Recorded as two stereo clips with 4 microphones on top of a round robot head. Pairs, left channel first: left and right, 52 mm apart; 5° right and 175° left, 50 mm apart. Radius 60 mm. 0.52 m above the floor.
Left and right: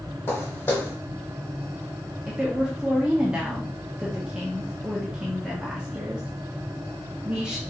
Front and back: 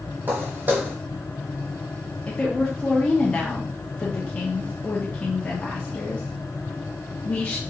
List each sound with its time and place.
0.3 s footsteps: 135° left, 0.8 m
2.3 s a woman speaking: 35° right, 0.9 m